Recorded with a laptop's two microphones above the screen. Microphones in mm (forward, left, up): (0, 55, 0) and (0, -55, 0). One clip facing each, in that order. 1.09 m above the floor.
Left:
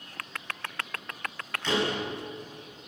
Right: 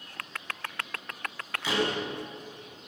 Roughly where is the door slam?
Centre.